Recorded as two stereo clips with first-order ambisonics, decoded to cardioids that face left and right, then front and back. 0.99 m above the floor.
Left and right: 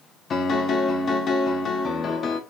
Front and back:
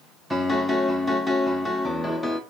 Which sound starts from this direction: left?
A piano, at 0.3 s.